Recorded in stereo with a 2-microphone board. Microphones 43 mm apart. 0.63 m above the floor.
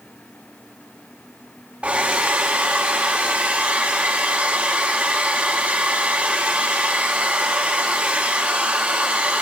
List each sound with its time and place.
1.8 s a hair dryer: 30° right (ahead or behind), 2 m